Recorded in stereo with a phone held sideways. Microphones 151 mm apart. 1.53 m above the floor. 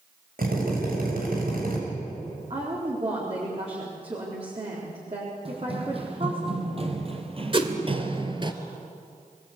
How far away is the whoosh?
About 2 m.